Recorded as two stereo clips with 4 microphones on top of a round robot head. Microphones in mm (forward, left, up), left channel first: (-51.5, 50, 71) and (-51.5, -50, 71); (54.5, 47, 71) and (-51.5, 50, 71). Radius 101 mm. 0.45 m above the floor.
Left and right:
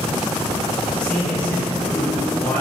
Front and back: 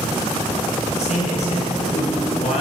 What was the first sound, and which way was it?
A man speaking, 10° left.